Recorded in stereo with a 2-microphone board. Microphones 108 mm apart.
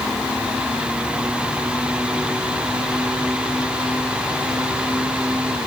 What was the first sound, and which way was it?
Only background noise.